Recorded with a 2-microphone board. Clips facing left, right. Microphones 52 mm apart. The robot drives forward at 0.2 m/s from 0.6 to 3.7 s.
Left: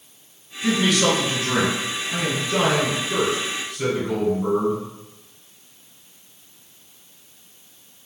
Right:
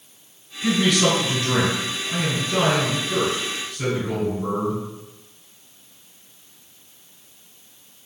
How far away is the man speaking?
About 1.9 m.